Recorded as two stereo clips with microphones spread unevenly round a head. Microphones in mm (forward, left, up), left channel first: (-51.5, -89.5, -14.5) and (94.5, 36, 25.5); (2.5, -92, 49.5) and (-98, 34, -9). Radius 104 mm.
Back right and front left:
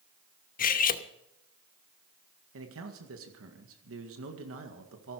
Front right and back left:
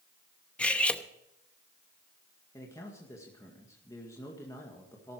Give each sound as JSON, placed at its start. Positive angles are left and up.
{"t": 0.6, "sound": "cutlery clinking", "azimuth_deg": -100, "distance_m": 0.8}
{"t": 2.5, "sound": "a man speaking", "azimuth_deg": 25, "distance_m": 1.9}